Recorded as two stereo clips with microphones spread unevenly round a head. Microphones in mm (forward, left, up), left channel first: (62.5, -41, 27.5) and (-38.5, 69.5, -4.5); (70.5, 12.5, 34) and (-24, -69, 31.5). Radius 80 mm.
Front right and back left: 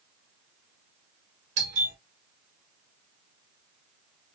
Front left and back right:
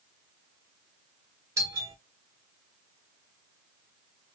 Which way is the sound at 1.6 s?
155° left.